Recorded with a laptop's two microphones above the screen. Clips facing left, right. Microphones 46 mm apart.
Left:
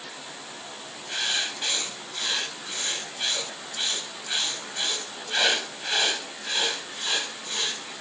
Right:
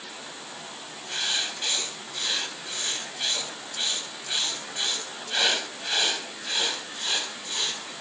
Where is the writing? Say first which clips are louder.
Left 1 dB; 5° left (ahead or behind), 5 m.